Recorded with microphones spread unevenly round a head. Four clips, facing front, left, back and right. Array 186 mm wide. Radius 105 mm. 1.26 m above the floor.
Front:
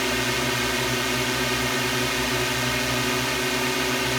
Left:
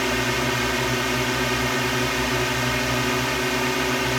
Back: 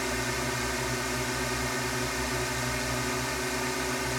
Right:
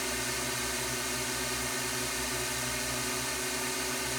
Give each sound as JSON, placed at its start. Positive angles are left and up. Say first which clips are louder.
{"t": 0.0, "sound": "a drone", "louder": "left 13 dB, front 6 dB", "azimuth_deg": 55}